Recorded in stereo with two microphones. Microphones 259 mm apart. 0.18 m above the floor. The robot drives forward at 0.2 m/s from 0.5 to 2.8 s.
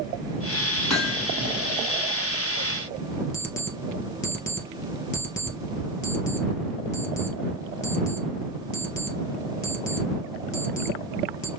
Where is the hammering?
75° left (ahead or behind), 2 m.